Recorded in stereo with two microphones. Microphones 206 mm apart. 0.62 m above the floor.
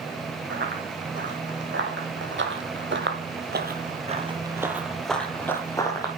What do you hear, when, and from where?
0.5 s running footsteps: 60° right (ahead or behind), 3 m; by 6.1 s 20° left (ahead or behind), 1.8 m